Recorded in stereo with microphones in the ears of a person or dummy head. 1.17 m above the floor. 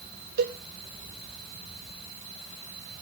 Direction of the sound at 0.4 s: 50° right (ahead or behind).